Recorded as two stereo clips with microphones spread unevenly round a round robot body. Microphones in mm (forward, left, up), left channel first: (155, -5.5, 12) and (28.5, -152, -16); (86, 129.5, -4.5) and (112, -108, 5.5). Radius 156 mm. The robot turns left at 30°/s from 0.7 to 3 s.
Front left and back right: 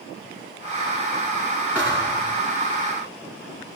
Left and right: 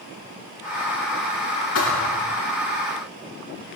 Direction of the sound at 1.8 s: 145° left.